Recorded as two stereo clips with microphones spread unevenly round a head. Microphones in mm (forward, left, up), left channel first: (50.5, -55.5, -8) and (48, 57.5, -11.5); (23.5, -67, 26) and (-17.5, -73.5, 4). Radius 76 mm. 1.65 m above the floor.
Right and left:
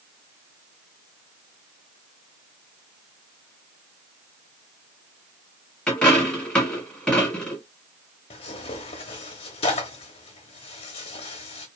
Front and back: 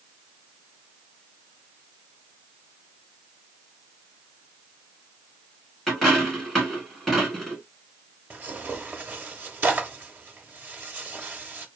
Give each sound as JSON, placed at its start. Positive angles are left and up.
{"t": 5.9, "sound": "a dropped coin", "azimuth_deg": -10, "distance_m": 1.3}
{"t": 8.3, "sound": "tearing paper", "azimuth_deg": -105, "distance_m": 0.9}